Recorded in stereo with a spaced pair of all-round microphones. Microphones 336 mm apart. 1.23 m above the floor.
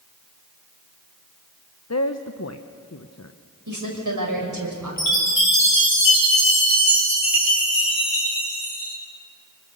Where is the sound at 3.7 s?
65° right (ahead or behind), 6 m.